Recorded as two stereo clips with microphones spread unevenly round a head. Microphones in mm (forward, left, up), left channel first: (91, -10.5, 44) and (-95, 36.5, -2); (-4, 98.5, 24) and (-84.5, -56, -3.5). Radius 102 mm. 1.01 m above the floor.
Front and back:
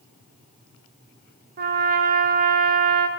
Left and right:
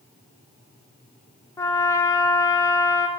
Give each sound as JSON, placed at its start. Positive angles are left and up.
{"t": 1.6, "sound": "a trumpet", "azimuth_deg": 140, "distance_m": 0.7}